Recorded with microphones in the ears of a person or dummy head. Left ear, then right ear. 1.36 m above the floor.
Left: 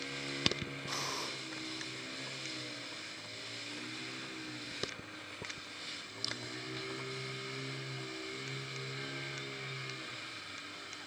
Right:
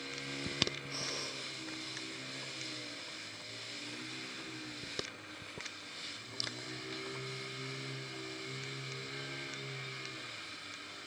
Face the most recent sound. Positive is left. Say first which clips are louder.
# left 2 dB
turn(degrees=45)  # may be behind; listen again after turning